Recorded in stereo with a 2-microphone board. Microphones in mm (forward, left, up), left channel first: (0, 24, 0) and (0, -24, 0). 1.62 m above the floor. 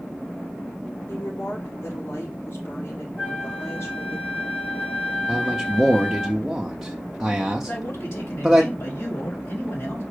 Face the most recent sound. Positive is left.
turn(degrees=65)  # may be behind; listen again after turning